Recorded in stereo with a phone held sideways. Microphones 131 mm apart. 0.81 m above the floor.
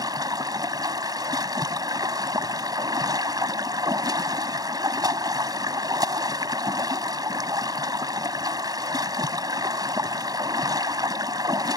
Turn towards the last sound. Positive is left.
turn(degrees=-30)  # may be behind; listen again after turning